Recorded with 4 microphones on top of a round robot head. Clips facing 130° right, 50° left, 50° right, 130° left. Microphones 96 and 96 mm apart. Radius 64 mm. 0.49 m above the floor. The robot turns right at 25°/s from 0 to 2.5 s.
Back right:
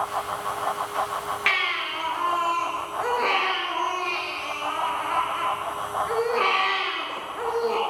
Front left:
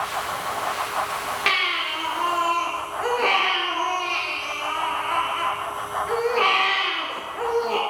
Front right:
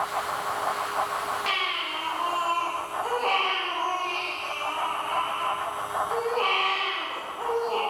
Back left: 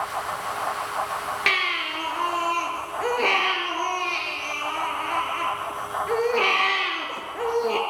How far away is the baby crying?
About 5.5 m.